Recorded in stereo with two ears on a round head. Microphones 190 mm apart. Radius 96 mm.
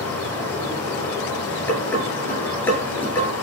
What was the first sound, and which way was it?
Running water, 10° left (ahead or behind).